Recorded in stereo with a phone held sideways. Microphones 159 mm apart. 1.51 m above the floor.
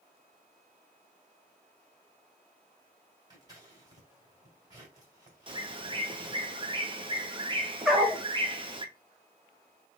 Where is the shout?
I don't hear a shout.